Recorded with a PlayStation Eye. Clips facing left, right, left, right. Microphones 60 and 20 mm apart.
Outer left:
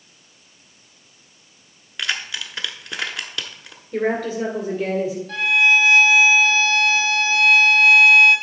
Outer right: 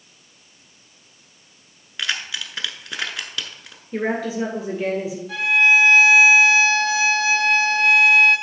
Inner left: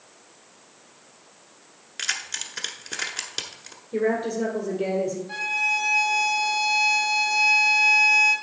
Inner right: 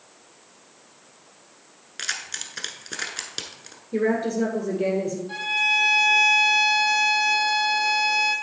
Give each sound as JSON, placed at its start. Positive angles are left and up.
{"t": 2.0, "sound": "keys jangling", "side_deg": 0, "distance_m": 0.9}
{"t": 3.9, "sound": "a woman speaking", "side_deg": -10, "distance_m": 1.6}
{"t": 5.3, "sound": "a violin", "side_deg": -10, "distance_m": 3.0}